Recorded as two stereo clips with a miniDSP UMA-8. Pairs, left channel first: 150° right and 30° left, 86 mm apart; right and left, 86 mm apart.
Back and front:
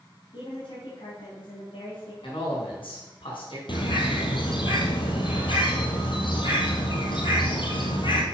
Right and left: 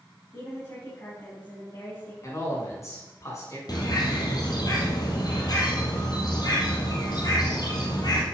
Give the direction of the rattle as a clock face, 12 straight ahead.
No rattle in this recording.